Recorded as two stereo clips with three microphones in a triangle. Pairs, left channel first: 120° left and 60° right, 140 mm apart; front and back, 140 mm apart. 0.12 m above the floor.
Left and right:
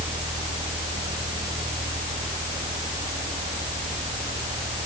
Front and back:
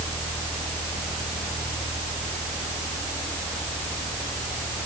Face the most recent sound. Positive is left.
No sound to turn to.